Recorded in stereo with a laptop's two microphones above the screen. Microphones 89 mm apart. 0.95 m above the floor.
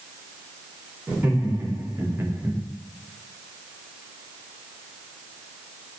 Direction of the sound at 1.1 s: 25° right (ahead or behind).